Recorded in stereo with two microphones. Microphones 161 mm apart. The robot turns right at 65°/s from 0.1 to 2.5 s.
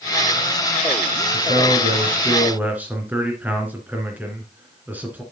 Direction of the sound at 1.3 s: 90° right.